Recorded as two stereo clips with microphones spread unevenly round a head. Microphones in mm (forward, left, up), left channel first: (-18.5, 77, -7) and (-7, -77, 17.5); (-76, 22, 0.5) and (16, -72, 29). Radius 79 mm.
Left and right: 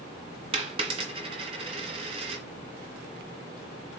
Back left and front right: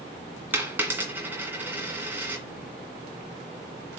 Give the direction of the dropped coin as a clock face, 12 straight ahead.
3 o'clock.